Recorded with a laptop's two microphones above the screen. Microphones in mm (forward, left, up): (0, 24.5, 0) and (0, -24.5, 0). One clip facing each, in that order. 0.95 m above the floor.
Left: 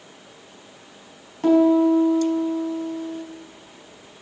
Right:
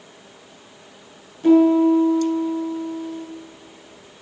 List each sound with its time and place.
1.4 s a piano: 55° left (ahead or behind), 5 m